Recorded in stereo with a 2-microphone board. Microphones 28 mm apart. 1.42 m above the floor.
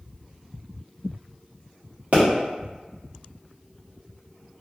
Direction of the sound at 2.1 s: 55° right (ahead or behind).